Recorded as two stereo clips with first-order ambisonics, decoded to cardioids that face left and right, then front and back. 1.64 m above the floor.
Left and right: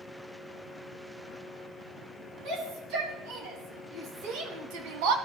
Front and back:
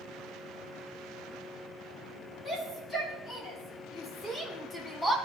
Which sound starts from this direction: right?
A shout, at 2.5 s.